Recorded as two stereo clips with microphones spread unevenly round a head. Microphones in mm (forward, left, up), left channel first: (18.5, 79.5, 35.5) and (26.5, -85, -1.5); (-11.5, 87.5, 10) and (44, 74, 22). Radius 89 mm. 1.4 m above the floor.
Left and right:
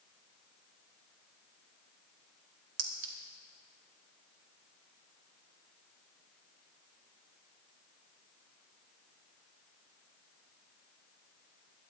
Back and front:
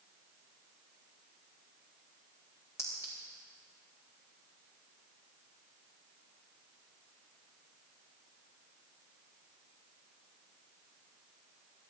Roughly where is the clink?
Behind right.